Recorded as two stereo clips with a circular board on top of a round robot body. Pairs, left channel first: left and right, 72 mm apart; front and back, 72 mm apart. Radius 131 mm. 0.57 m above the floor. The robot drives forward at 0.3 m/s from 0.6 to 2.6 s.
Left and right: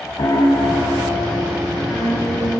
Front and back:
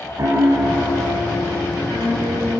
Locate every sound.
0.2 s a piano: 130° left, 5 m; by 2.6 s 135° left, 5.5 m